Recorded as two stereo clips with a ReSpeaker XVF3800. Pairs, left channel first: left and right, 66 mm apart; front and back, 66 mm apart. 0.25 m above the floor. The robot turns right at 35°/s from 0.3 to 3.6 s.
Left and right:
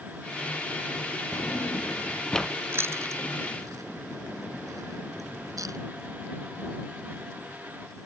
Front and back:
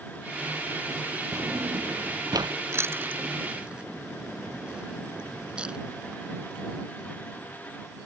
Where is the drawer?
135° left; by 2.5 s 175° left.